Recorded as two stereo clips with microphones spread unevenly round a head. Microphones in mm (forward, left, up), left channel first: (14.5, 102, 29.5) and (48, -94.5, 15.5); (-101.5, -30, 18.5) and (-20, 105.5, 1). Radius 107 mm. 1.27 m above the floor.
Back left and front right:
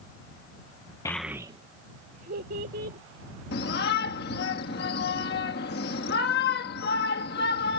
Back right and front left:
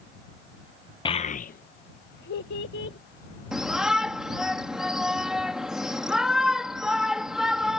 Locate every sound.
1.1 s a child speaking: 175° left; by 3.0 s 130° right
3.5 s a shout: 145° left